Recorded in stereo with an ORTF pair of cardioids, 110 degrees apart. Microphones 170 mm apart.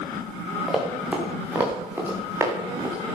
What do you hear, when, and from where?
0.7 s running footsteps: 5° right, 5.5 m; by 3.0 s 20° right, 6 m